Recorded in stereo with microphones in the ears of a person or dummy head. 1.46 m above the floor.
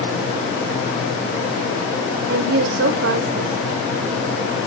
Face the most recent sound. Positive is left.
turn(degrees=-75)  # may be behind; listen again after turning